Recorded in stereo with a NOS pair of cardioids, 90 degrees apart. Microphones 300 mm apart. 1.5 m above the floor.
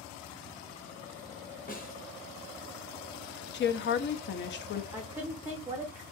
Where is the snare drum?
30° left, 1.0 m.